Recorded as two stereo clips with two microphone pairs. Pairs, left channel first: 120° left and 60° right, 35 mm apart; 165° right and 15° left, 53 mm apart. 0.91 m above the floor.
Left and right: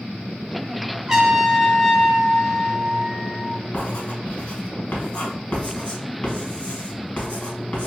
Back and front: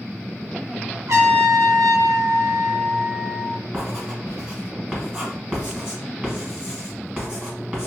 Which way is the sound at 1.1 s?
10° left.